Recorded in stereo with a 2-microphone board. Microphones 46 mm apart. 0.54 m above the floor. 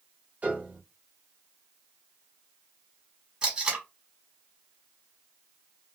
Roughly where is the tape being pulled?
Right.